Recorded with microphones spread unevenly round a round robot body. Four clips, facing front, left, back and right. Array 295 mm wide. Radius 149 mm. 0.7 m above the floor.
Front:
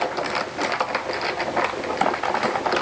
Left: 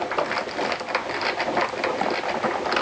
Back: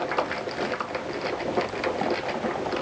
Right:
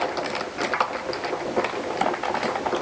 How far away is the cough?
I don't hear a cough.